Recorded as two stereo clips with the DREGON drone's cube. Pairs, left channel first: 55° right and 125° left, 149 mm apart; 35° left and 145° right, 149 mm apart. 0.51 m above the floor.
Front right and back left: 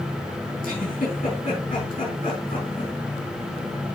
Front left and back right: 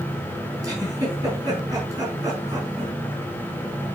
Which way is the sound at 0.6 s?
80° right.